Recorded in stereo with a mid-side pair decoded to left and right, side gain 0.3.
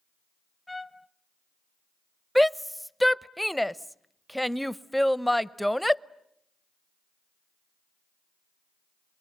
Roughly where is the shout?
Ahead.